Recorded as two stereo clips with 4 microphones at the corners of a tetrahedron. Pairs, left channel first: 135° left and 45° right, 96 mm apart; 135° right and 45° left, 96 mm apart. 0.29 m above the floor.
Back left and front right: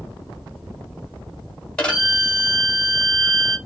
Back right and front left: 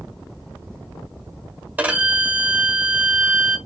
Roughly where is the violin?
Left.